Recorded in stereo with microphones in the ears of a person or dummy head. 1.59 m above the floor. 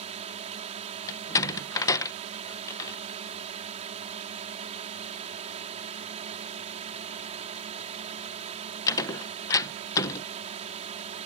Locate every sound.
0.0 s a drone: 35° right (ahead or behind)
1.1 s a door slam: 15° left (ahead or behind)